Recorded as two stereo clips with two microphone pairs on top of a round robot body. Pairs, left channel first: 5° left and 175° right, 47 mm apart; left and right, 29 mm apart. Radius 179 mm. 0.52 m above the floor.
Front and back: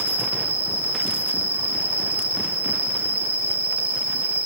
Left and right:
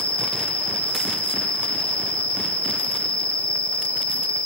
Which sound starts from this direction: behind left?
An insect, at 0.0 s.